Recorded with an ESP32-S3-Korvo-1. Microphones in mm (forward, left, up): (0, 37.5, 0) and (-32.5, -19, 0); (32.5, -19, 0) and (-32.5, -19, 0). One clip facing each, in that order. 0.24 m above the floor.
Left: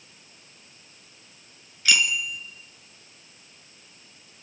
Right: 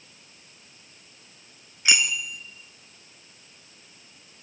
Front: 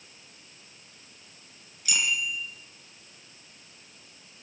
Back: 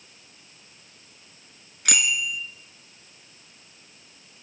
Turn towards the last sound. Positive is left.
turn(degrees=175)